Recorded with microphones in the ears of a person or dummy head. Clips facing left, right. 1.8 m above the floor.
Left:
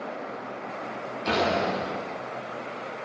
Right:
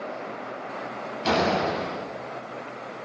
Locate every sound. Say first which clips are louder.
1.2 s a door slam: right 2 dB; 70° right (ahead or behind), 7.5 m